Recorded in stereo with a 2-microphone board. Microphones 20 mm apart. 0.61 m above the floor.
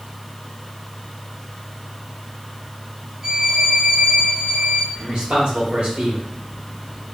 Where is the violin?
20° right (ahead or behind), 0.6 m.